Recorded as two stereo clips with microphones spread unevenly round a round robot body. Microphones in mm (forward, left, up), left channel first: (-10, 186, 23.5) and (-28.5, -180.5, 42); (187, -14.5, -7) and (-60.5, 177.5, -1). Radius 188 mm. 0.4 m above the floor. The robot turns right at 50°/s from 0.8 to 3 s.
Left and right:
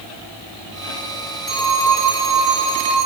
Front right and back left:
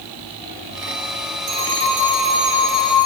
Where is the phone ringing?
150° left, 7 m; by 3.1 s 130° right, 7 m.